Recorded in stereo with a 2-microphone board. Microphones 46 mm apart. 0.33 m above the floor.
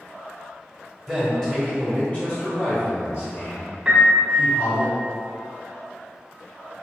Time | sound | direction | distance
1.1 | a man speaking | 5° left (ahead or behind) | 1.5 m
3.9 | a piano | 15° right (ahead or behind) | 1.0 m